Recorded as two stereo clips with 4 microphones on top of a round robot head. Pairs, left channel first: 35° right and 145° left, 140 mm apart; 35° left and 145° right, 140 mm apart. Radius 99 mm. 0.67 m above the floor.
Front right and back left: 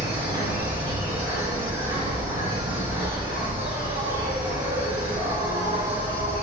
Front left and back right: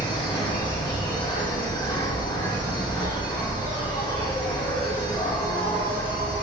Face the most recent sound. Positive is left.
turn(degrees=95)